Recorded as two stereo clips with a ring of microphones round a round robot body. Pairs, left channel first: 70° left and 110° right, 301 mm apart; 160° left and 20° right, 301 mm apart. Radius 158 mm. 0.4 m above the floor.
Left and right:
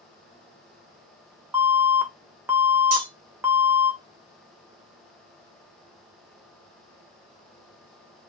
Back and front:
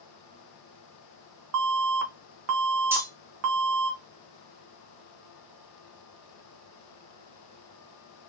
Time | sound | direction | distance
1.5 | an alarm | 30° right | 0.7 m
2.9 | cutlery clinking | 105° right | 1.0 m